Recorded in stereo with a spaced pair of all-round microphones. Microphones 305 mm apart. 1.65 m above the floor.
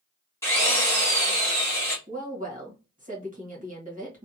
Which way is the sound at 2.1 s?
25° right (ahead or behind).